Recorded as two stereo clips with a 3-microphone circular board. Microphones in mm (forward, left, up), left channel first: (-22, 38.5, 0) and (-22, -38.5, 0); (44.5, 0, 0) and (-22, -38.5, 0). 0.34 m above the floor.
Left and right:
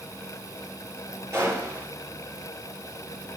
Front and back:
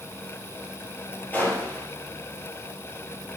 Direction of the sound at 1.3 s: 40° right.